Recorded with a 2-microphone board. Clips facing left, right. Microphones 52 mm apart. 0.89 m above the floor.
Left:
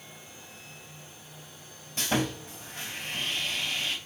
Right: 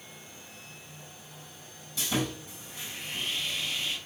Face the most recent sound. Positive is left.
turn(degrees=50)  # may be behind; listen again after turning